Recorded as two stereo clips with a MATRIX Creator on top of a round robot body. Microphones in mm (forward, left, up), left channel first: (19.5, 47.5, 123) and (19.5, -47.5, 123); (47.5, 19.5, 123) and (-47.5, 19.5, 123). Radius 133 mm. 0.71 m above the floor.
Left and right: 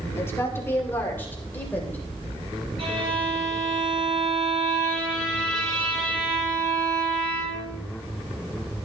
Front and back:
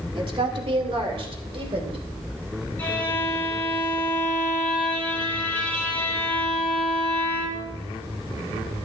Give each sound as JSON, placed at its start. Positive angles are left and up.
{"t": 0.1, "sound": "a woman speaking", "azimuth_deg": 155, "distance_m": 2.5}
{"t": 2.8, "sound": "a violin", "azimuth_deg": -70, "distance_m": 4.5}